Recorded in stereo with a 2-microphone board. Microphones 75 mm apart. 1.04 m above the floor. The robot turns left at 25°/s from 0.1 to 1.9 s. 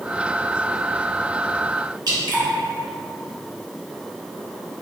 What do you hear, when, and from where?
2.1 s dripping: 55° right (ahead or behind), 0.9 m